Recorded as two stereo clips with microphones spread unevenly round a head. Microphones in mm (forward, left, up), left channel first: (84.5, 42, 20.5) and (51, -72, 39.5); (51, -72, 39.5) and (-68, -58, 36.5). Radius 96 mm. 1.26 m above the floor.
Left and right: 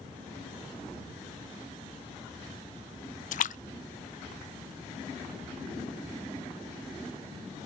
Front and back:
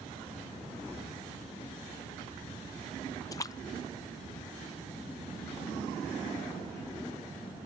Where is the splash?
65° left.